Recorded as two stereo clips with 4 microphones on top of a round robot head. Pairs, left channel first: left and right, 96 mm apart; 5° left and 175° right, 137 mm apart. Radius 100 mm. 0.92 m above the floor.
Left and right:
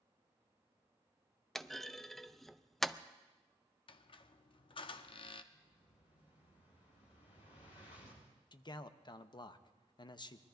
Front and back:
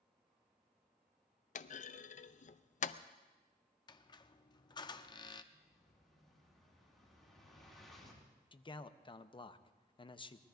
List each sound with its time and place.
1.6 s a clunk: 5° left, 0.5 m
3.9 s a squeak: 60° left, 0.7 m
5.5 s an explosion: 90° left, 5 m
8.5 s a man speaking: 55° left, 0.9 m